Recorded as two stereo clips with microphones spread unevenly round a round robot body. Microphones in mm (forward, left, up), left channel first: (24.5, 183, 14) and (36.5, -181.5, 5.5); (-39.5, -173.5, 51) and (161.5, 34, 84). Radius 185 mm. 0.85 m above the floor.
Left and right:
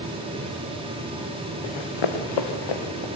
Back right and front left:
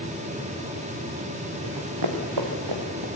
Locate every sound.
1.6 s running footsteps: 85° left, 3 m; by 3.1 s 70° left, 3.5 m